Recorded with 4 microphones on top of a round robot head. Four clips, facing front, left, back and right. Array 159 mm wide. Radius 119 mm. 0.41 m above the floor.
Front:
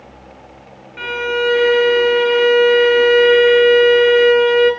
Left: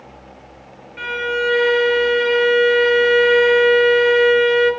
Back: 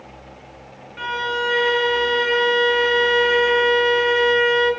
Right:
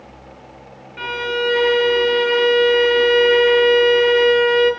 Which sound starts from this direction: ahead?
A violin, at 1.0 s.